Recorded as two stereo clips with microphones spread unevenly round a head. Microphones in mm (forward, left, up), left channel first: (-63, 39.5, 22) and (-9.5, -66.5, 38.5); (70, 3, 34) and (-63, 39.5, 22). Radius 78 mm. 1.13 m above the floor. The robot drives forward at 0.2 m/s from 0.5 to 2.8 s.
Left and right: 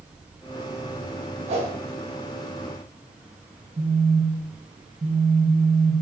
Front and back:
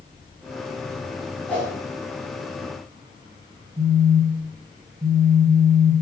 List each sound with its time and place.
1.5 s a whoosh: 100° right, 1.1 m
3.8 s a phone buzzing: 125° right, 0.8 m